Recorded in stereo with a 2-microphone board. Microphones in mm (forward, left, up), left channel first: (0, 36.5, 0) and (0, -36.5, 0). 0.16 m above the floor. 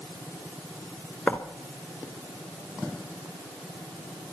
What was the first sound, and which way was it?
Writing, 20° left (ahead or behind).